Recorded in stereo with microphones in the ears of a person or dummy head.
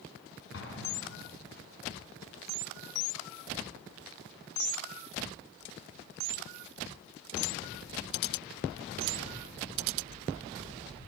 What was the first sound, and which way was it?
An explosion, 70° left (ahead or behind).